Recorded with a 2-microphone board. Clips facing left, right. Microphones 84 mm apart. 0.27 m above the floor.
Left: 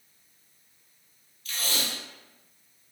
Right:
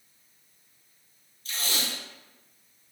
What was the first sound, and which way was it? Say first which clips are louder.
Tape being pulled: even; 35° right (ahead or behind).